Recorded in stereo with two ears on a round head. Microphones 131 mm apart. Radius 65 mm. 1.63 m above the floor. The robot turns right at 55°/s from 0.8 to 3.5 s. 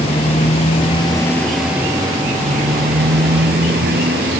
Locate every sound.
0.0 s a motorcycle: 140° left; by 4.4 s 75° right